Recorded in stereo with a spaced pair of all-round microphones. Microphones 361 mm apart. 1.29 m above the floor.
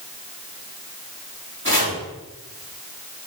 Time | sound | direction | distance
1.6 | chopping | 30° right (ahead or behind) | 3.5 m